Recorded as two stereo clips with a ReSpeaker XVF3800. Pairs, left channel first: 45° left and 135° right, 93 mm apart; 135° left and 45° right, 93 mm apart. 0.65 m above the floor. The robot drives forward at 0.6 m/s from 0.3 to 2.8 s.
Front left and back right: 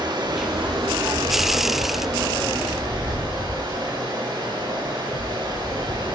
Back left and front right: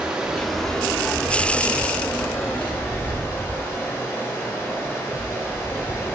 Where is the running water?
125° right, 0.7 m; by 6.2 s 165° right, 2.0 m.